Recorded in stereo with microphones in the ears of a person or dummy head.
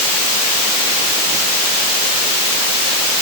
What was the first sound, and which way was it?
Only background noise.